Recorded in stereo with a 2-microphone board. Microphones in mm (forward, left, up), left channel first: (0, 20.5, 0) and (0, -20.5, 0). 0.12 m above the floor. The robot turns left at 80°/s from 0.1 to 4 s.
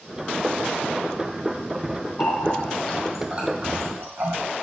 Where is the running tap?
60° left (ahead or behind), 2.5 m; by 4.4 s 70° right (ahead or behind), 2.5 m.